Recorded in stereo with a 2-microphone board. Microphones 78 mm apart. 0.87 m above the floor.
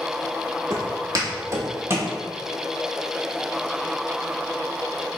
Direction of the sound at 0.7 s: 45° right (ahead or behind).